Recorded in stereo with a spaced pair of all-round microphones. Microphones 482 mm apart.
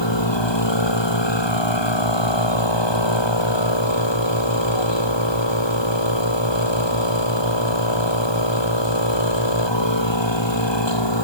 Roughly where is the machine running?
Left.